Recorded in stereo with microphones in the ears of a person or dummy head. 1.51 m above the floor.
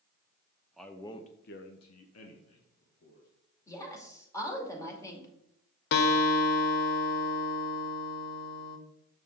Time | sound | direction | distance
0.8 | a man speaking | centre (ahead or behind) | 0.9 m
3.7 | a woman speaking | 15° left (ahead or behind) | 2.5 m
5.9 | a guitar | 55° left (ahead or behind) | 0.9 m